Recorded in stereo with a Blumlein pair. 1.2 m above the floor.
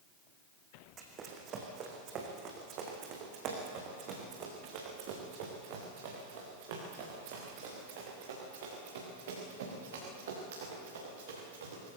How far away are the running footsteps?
About 4.5 m.